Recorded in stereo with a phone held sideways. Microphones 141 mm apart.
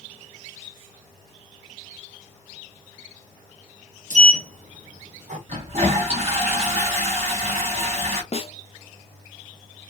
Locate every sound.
4.1 s a sliding door: 60° right (ahead or behind), 1.0 m
5.5 s a toilet flushing: 50° right (ahead or behind), 1.9 m
8.3 s a snare drum: 45° left (ahead or behind), 0.5 m